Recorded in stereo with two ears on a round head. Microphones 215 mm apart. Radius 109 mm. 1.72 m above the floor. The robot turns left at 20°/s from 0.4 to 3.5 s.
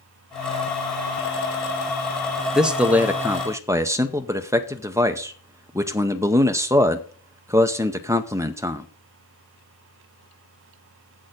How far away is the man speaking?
About 0.6 m.